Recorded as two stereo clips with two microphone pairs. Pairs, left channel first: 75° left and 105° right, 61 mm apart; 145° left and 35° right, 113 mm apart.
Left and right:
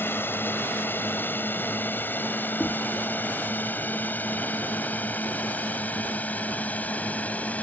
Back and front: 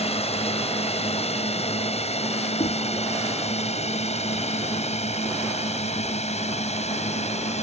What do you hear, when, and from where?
0.0 s a drone: 130° left; by 7.6 s 140° left
2.6 s knocking: 145° left